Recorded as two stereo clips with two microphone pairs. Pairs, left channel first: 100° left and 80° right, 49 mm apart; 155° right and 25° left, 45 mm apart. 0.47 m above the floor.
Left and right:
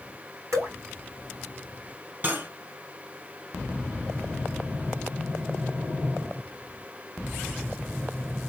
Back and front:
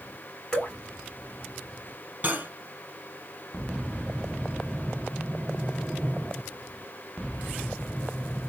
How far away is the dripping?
About 3.5 m.